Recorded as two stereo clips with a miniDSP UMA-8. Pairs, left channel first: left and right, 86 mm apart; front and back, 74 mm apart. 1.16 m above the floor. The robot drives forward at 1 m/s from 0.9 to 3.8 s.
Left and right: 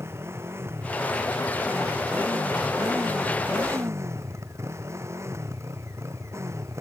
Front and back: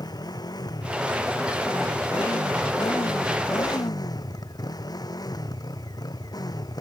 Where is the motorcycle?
30° right.